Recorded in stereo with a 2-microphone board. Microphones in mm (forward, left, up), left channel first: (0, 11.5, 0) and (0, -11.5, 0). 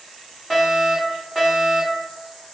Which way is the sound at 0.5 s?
15° right (ahead or behind).